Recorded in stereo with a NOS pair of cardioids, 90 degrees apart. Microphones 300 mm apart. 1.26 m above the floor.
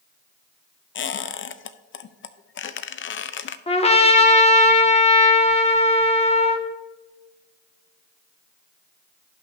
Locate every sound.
0.9 s a squeak: 45° left, 0.7 m
3.7 s a trumpet: 20° left, 1.6 m